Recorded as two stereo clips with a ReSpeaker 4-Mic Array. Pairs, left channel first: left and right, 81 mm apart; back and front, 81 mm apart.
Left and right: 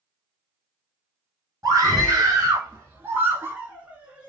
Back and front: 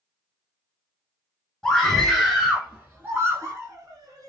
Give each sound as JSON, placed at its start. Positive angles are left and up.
{"t": 1.6, "sound": "a scream", "azimuth_deg": -100, "distance_m": 1.7}